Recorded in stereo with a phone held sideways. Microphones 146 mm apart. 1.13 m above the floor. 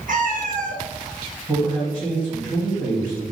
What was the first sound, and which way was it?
A cat meowing, 65° right (ahead or behind).